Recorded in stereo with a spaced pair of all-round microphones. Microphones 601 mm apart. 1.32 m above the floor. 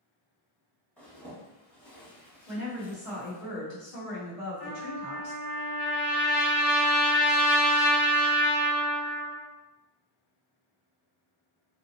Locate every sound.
1.0 s a zipper: centre (ahead or behind), 1.2 m
2.5 s a woman speaking: 80° left, 1.5 m
4.6 s a trumpet: 65° left (ahead or behind), 1.7 m